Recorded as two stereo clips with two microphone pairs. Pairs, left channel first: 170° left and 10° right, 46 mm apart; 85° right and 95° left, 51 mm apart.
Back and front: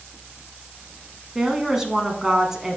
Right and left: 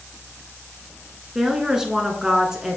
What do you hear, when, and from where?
1.4 s a woman speaking: 45° left, 1.1 m